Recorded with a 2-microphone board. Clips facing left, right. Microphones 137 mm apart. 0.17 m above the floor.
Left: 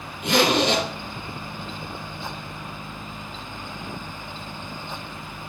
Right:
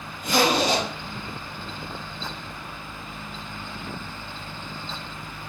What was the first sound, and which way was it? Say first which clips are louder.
A zipper: left 1 dB; 75° left (ahead or behind).